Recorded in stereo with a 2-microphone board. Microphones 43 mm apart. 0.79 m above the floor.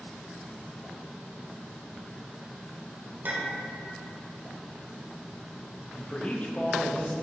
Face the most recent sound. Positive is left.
turn(degrees=35)  # may be behind; listen again after turning